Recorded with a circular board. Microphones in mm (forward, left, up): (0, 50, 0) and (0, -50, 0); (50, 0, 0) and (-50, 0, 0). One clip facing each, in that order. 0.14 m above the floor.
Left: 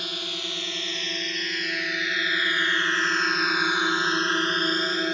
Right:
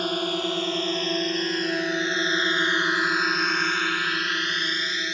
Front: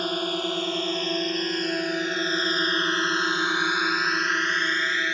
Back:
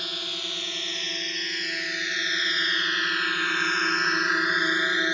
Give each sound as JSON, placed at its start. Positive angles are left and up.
{"t": 0.0, "sound": "a drone", "azimuth_deg": -45}